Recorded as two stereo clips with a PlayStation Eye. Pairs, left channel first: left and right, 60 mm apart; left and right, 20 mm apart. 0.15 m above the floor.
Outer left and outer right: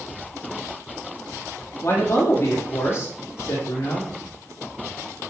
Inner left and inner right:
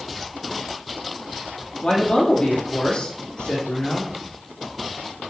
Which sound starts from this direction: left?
A man speaking, at 1.8 s.